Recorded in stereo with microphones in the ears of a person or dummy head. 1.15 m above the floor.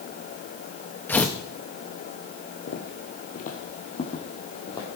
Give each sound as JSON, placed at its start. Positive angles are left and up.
{"t": 1.1, "sound": "tearing paper", "side_deg": 10, "distance_m": 1.0}
{"t": 2.7, "sound": "footsteps", "side_deg": 50, "distance_m": 1.7}